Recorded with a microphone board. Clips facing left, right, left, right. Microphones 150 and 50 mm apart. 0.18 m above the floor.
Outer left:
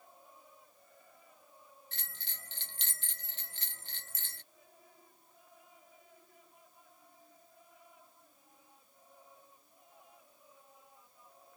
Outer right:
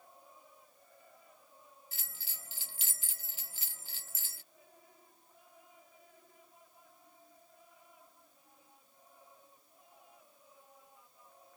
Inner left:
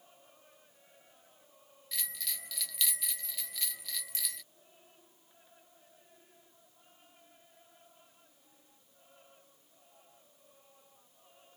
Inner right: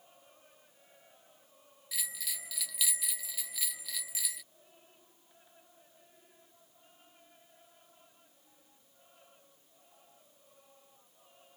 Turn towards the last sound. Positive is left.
turn(degrees=-5)  # may be behind; listen again after turning